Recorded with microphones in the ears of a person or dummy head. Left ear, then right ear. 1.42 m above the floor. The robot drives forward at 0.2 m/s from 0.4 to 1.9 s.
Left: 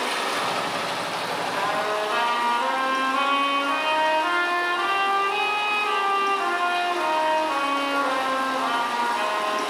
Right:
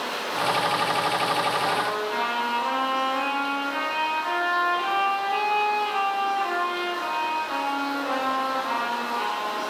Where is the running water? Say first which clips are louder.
Left 2 dB; 45° left (ahead or behind), 1.1 m; by 9.7 s 40° left (ahead or behind), 1.3 m.